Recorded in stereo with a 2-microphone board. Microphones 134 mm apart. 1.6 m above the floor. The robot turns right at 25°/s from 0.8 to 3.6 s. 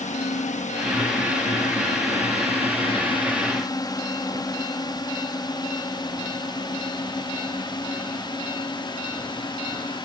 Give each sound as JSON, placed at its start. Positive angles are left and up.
{"t": 0.0, "sound": "a drone", "side_deg": 65}